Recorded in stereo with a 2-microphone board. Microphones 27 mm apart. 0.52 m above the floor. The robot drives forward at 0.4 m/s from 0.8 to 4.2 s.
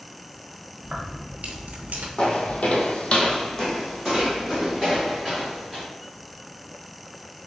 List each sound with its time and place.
0.8 s keys jangling: 45° right (ahead or behind), 0.9 m; by 2.1 s 65° right (ahead or behind), 0.7 m
2.2 s footsteps: 35° left (ahead or behind), 1.0 m; by 5.8 s 10° left (ahead or behind), 3 m